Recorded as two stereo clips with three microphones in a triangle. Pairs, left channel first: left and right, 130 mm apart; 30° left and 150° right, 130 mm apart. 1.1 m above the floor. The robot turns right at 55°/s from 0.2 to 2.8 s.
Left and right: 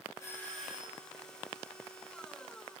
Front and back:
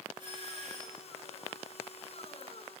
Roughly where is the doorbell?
Behind left.